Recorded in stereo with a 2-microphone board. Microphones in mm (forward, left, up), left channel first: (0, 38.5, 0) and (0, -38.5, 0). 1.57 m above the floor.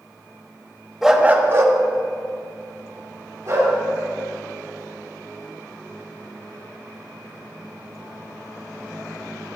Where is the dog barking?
5° right (ahead or behind), 1.0 m; by 3.7 s 50° right (ahead or behind), 4 m.